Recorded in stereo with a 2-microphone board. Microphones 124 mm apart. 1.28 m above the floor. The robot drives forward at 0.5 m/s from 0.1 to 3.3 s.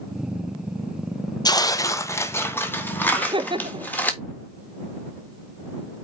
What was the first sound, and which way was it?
Tearing paper, 35° left (ahead or behind).